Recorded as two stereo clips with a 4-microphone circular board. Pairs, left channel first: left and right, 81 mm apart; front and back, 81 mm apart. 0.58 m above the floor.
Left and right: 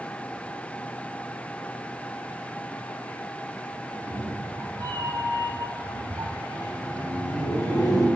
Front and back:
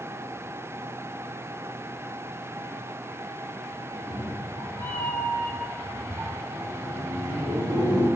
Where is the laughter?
60° right, 3 m.